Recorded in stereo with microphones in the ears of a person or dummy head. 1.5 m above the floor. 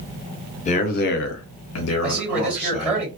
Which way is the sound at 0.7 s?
35° left (ahead or behind).